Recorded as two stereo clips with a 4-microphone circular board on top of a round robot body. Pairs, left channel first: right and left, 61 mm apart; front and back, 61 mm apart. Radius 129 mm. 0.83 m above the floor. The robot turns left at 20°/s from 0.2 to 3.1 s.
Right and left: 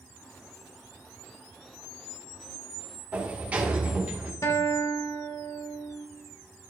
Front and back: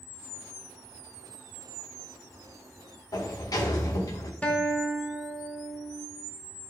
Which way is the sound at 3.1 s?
25° left.